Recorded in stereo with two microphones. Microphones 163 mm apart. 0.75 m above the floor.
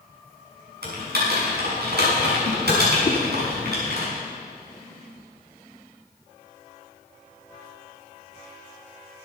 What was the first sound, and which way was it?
Typing on a keyboard, 85° right.